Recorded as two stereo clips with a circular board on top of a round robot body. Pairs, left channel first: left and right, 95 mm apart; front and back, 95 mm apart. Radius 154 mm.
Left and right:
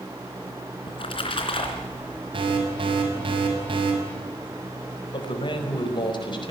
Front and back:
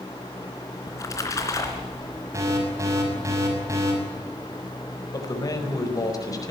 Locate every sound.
0.9 s a splash: 55° left, 3 m
2.3 s an alarm: 120° right, 6 m
5.1 s a man speaking: 50° left, 5.5 m